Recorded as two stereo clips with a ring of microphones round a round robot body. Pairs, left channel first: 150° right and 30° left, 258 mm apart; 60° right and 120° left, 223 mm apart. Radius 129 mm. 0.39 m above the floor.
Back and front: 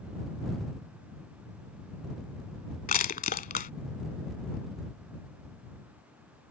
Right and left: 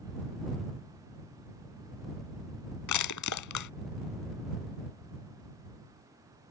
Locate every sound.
2.9 s crushing: 90° right